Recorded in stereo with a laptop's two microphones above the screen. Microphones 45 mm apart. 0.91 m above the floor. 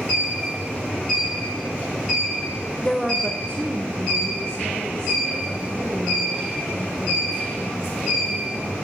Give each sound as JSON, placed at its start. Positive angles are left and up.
{"t": 2.8, "sound": "a woman speaking", "side_deg": 10, "distance_m": 0.6}